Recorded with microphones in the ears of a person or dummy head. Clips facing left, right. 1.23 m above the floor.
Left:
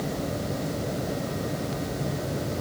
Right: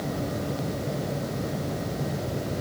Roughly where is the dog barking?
No dog barking in this recording.